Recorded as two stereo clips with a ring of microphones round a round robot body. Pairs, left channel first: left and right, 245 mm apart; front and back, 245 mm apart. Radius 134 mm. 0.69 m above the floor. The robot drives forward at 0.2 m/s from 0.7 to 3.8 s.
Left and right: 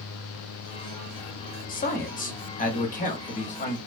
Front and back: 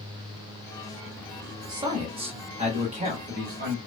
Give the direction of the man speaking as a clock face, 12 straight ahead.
8 o'clock.